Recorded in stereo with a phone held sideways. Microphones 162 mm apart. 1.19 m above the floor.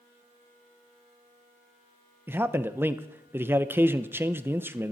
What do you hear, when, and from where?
2.3 s a man speaking: 15° right (ahead or behind), 0.8 m